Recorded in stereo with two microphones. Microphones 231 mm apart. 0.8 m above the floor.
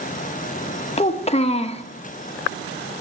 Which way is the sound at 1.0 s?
25° left (ahead or behind).